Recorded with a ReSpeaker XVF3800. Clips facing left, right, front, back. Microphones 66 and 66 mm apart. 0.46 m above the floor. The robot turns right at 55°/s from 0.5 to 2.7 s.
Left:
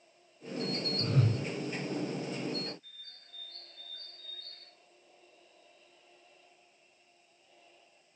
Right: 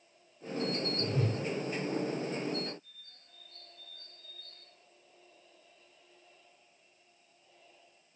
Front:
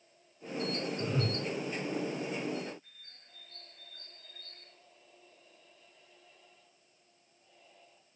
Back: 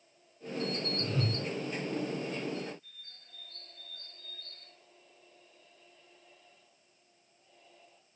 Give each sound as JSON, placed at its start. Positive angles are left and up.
{"t": 1.0, "sound": "a whoosh", "azimuth_deg": 60, "distance_m": 4.5}
{"t": 2.8, "sound": "a bird", "azimuth_deg": 60, "distance_m": 1.9}